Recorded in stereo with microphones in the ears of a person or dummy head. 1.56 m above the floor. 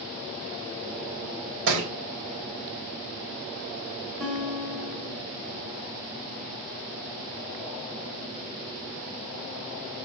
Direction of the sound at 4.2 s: Centre (ahead or behind).